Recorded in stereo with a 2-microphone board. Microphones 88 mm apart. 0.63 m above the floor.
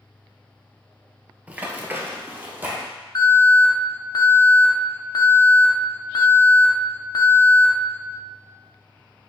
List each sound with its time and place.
1.5 s running footsteps: 15° right (ahead or behind), 0.6 m; by 2.9 s 20° right (ahead or behind), 1.1 m
3.1 s an alarm: 45° left (ahead or behind), 0.7 m